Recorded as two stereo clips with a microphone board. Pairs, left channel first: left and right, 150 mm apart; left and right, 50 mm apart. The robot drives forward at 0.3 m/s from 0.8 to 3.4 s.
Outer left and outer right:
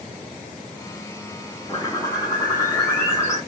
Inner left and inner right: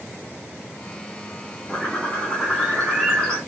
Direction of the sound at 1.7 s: 25° left (ahead or behind).